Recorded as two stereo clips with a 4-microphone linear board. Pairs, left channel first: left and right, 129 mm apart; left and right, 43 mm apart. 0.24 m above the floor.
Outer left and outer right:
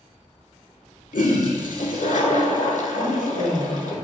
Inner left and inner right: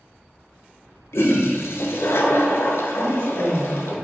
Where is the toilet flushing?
85° left, 0.5 m.